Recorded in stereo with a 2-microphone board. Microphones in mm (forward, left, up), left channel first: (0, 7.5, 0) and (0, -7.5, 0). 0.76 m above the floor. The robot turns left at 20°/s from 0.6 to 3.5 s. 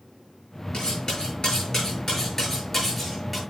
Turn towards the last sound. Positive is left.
turn(degrees=5)